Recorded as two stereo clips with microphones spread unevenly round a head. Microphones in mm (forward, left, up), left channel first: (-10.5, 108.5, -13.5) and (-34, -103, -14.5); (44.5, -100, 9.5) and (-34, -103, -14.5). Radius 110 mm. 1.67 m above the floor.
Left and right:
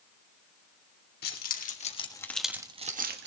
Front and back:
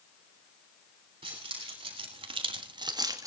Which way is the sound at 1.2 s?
125° left.